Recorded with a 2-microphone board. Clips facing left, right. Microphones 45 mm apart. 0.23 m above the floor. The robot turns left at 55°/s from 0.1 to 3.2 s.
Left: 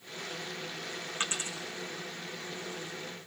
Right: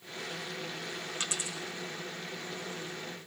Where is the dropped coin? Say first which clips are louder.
Left 4 dB; 30° left (ahead or behind), 4.5 m; by 1.6 s 50° left (ahead or behind), 4.5 m.